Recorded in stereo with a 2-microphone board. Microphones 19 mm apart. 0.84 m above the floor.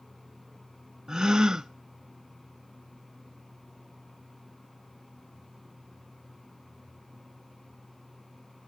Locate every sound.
1.1 s a gasp: 35° right (ahead or behind), 0.5 m